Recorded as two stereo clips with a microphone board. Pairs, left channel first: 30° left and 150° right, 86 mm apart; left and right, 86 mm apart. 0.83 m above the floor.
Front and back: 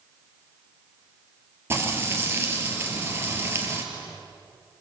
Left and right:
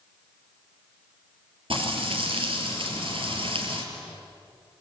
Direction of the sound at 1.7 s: 85° right.